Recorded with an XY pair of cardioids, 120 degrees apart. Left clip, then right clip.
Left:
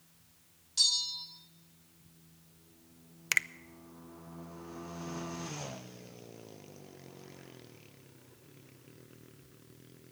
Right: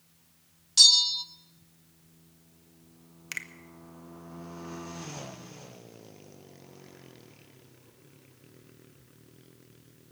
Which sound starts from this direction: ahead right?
A bell, at 0.8 s.